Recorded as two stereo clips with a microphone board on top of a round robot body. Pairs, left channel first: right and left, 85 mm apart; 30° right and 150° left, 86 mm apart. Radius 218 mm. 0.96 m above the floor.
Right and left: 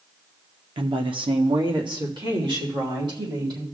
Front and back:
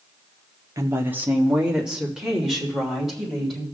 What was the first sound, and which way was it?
A woman speaking, 100° left.